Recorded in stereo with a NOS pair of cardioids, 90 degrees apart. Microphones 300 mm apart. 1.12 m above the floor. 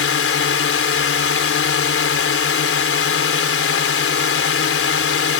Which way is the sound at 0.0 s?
45° left.